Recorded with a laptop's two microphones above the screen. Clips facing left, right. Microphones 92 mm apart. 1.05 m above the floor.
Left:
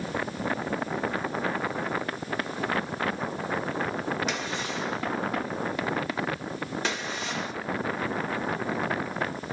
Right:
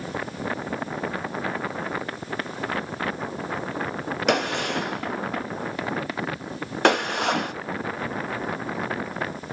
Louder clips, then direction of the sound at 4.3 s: Right 8 dB; 70° right (ahead or behind).